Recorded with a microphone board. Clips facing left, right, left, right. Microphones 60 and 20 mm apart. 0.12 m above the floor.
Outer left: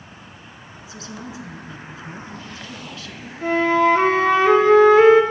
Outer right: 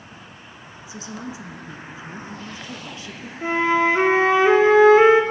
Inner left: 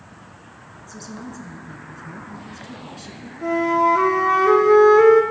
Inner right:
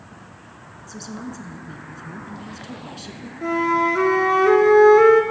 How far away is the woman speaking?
About 1.3 m.